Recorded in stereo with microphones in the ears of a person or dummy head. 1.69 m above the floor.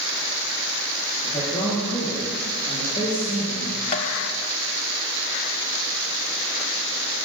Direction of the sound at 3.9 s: 30° left (ahead or behind).